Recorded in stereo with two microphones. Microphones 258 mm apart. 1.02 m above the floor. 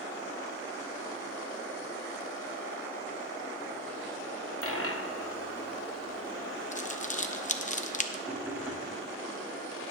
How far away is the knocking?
About 2 m.